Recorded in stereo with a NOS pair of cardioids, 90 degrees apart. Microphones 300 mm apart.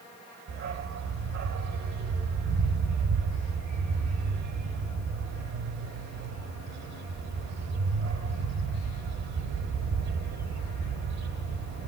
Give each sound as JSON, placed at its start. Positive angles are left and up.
{"t": 0.5, "sound": "a dog barking", "azimuth_deg": -65, "distance_m": 1.8}